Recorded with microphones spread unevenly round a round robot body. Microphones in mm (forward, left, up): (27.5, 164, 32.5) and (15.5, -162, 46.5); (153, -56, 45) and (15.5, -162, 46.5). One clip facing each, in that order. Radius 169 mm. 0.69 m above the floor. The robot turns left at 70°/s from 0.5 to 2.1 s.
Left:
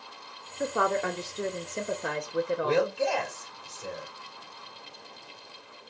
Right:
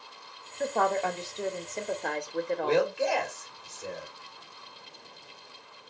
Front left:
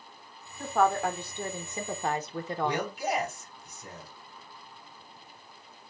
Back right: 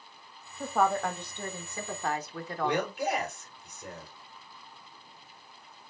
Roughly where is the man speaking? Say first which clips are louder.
Right 2 dB, back right 2 dB; behind.